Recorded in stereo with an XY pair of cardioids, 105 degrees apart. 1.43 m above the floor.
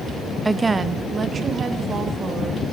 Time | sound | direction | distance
0.5 | a woman speaking | 20° right | 0.5 m